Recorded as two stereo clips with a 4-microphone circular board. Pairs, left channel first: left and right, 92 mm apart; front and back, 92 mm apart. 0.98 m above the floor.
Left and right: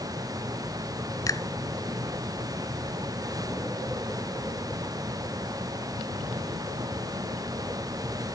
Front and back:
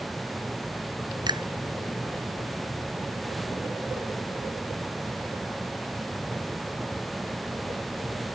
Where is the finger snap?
140° left.